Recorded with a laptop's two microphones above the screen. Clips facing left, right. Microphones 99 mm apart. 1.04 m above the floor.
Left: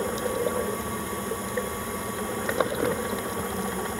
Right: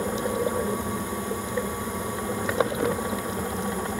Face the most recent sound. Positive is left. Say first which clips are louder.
# right 1 dB
turn(degrees=-15)  # may be behind; listen again after turning